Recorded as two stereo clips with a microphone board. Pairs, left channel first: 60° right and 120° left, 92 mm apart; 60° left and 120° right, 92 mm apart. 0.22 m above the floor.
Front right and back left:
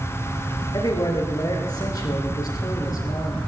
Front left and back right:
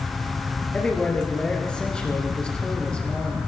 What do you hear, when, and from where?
0.7 s a man speaking: 20° right, 3.5 m